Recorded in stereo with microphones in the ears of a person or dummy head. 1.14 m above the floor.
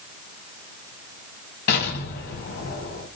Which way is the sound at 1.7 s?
60° left (ahead or behind).